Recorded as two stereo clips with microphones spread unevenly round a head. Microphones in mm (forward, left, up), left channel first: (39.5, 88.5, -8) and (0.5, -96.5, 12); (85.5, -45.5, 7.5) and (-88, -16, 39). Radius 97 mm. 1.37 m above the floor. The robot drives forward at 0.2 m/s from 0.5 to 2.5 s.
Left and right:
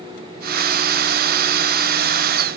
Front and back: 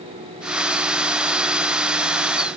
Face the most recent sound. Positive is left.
No sound to turn to.